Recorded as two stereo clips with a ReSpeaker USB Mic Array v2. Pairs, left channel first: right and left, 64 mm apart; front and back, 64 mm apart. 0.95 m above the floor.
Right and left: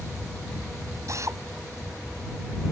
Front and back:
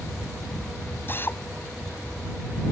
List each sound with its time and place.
1.1 s a drill: 55° left